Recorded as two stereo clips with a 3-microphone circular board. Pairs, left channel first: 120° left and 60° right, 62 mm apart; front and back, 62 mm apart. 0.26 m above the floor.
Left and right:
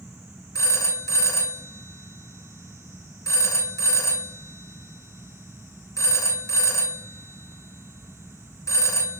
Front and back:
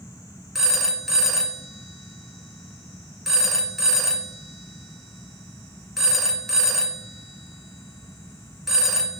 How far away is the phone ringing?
About 2 m.